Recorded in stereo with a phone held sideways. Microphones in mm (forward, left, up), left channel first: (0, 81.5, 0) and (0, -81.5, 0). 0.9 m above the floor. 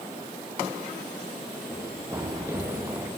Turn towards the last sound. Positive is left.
turn(degrees=-15)  # may be behind; listen again after turning